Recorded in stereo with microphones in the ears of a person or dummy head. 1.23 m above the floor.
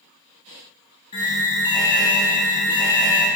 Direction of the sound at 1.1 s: 20° left (ahead or behind).